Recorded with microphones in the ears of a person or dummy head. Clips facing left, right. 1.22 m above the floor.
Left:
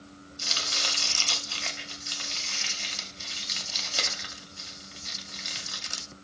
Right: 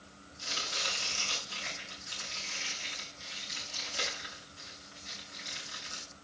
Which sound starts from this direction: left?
Chopping, at 0.4 s.